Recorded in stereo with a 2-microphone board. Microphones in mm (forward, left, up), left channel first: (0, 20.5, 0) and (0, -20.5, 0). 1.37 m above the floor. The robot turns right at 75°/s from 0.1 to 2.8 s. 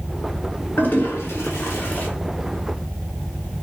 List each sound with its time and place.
0.8 s a toilet flushing: 45° left (ahead or behind), 1.1 m; by 2.1 s 35° left (ahead or behind), 1.1 m